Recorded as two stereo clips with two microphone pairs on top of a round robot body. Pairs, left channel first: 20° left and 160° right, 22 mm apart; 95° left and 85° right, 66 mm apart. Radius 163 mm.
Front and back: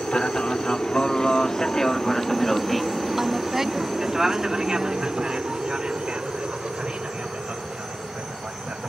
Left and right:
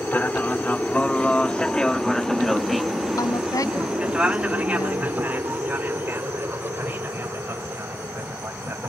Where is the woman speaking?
125° left.